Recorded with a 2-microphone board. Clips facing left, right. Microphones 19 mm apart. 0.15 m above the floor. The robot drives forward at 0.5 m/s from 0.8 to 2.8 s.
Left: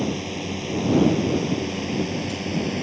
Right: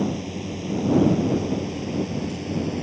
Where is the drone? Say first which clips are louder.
Even; 30° left (ahead or behind); by 2.8 s 35° left (ahead or behind).